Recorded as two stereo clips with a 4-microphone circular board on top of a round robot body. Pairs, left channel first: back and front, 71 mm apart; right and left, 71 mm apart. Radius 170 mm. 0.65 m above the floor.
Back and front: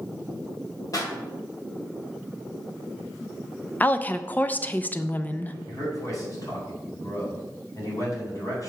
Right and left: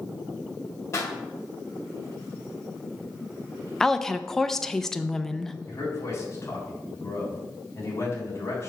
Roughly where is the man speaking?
Behind right.